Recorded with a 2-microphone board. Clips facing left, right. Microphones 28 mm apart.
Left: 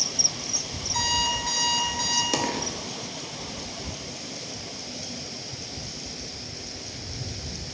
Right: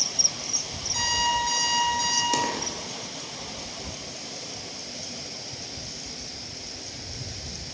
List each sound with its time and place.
0.9 s an alarm clock: 5° left (ahead or behind), 3 m
2.3 s a dropped coin: 10° left (ahead or behind), 1.2 m